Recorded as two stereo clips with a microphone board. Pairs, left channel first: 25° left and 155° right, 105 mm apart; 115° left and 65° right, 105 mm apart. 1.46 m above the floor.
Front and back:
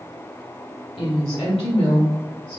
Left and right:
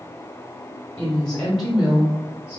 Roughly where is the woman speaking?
Ahead left.